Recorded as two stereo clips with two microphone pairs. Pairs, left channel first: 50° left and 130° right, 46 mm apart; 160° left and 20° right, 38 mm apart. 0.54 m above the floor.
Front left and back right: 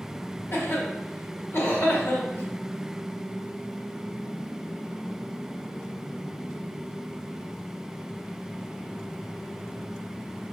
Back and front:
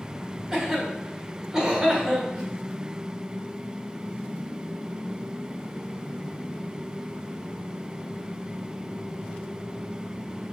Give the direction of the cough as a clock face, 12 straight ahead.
10 o'clock.